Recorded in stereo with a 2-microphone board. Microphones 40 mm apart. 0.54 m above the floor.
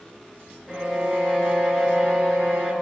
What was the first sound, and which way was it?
A violin, 15° right (ahead or behind).